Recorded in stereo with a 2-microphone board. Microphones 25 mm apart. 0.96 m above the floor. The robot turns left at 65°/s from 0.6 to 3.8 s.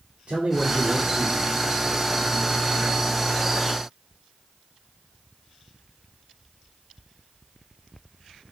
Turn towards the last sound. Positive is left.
turn(degrees=40)